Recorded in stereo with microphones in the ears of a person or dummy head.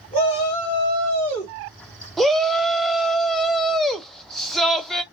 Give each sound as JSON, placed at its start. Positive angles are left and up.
{"t": 0.1, "sound": "a shout", "side_deg": 30, "distance_m": 2.5}
{"t": 2.2, "sound": "a shout", "side_deg": 5, "distance_m": 0.9}